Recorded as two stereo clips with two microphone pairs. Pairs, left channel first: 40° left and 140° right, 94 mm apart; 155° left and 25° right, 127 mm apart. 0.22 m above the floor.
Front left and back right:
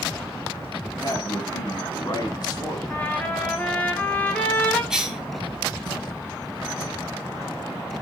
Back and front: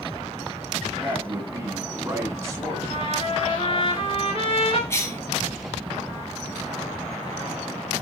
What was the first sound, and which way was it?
A man speaking, 35° left.